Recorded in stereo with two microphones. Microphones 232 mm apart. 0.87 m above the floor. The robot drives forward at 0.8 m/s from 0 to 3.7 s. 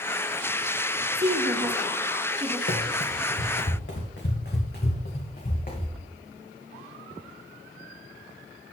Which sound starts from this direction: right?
A woman speaking, at 1.1 s.